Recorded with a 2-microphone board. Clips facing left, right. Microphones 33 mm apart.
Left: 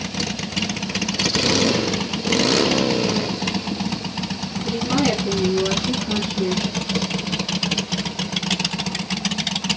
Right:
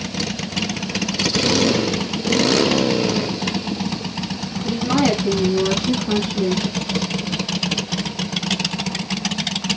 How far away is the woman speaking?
About 7 m.